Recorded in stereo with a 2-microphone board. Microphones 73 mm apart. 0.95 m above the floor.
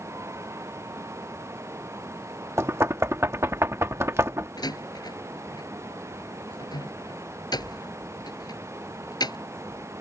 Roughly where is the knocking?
Right.